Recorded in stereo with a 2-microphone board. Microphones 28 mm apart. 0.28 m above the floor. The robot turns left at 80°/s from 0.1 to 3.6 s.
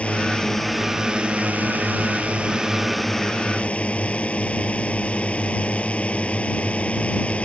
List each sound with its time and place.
0.0 s a drone: 50° left; by 7.5 s 130° left